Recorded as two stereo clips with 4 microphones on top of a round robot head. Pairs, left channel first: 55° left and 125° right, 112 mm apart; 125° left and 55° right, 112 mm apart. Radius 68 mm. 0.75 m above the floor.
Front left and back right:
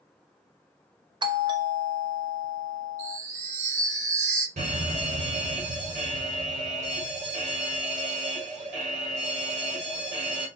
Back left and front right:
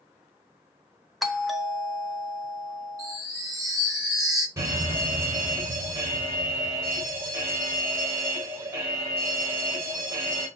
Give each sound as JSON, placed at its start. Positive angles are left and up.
{"t": 1.2, "sound": "a doorbell", "azimuth_deg": -145, "distance_m": 1.4}
{"t": 3.0, "sound": "a chime", "azimuth_deg": -115, "distance_m": 3.5}
{"t": 4.6, "sound": "a fire alarm", "azimuth_deg": -120, "distance_m": 5.0}